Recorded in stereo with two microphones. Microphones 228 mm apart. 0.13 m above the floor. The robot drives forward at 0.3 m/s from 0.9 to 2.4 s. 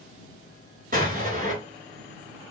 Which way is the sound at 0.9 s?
40° right (ahead or behind).